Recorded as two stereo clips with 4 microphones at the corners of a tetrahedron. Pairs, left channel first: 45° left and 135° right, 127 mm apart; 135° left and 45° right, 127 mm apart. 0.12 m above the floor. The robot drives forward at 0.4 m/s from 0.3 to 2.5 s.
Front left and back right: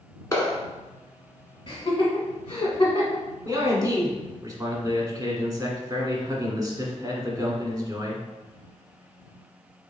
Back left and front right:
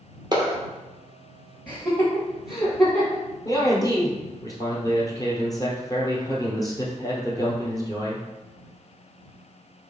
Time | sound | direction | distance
0.3 | a clap | 10° right | 1.3 m
1.7 | laughter | 65° left | 1.4 m
3.5 | a man speaking | straight behind | 1.5 m